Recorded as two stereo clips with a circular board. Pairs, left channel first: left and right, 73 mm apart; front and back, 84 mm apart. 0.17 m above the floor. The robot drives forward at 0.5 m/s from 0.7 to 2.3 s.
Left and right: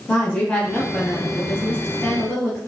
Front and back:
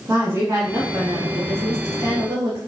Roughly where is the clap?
I don't hear a clap.